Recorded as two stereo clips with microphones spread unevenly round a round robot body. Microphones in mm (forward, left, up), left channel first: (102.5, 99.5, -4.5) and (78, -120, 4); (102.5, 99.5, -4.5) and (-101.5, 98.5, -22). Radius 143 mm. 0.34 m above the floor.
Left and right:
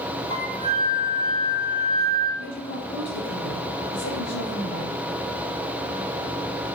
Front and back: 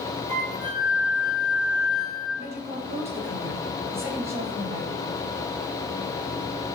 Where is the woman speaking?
105° left, 5 m.